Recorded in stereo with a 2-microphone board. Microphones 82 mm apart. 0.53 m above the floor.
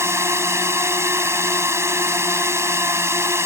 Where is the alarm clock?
No alarm clock in this recording.